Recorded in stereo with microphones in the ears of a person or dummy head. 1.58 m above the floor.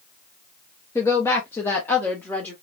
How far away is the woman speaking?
About 0.7 m.